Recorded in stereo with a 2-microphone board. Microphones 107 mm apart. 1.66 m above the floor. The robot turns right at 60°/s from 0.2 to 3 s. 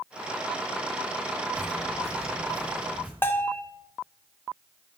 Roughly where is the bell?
Left.